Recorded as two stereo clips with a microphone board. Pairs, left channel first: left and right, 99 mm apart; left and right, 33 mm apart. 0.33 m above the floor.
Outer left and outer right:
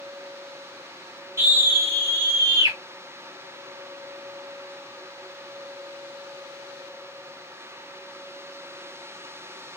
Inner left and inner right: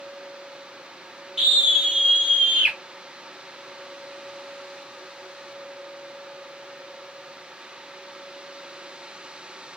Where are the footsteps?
No footsteps in this recording.